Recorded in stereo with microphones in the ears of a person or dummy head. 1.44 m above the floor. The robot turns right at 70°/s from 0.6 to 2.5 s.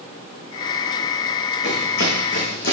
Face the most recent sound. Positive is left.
turn(degrees=50)  # may be behind; listen again after turning